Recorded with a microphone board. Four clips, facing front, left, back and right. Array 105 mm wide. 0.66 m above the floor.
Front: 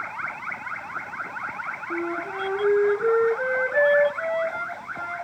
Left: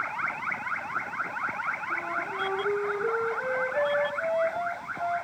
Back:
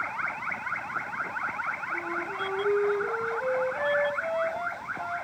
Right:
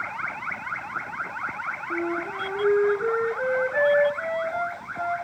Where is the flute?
20° right, 8.5 m.